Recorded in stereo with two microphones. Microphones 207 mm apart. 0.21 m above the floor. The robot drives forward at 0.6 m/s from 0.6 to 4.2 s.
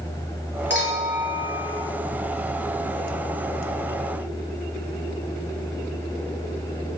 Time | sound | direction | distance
0.7 | a clink | 65° right (ahead or behind) | 3 m